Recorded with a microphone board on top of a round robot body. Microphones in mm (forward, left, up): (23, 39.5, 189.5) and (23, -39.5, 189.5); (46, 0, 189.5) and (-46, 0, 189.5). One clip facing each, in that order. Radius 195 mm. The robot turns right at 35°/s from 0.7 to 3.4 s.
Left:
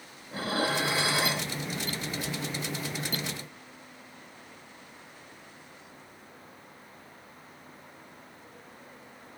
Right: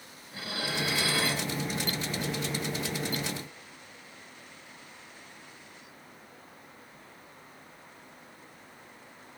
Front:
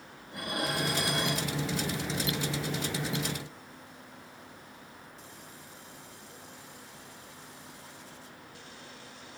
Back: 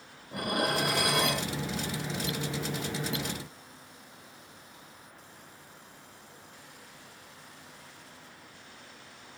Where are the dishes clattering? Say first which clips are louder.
Left 6 dB, back 4 dB; 145° left, 0.8 m; by 1.5 s 175° left, 0.8 m.